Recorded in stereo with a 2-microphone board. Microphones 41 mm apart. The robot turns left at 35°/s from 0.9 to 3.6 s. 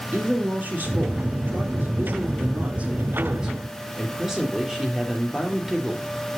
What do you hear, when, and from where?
0.1 s a woman speaking: 70° right, 3 m; by 6.0 s 165° right, 3 m